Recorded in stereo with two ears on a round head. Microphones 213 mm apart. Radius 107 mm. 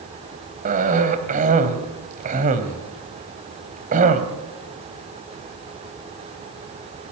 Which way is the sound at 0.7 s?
35° right (ahead or behind).